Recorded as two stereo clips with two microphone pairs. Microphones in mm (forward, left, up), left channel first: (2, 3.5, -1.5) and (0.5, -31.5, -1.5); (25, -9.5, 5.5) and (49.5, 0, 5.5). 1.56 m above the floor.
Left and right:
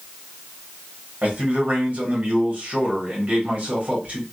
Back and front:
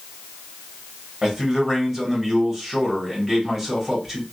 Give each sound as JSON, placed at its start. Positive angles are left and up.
{"t": 1.2, "sound": "a man speaking", "azimuth_deg": -60, "distance_m": 1.4}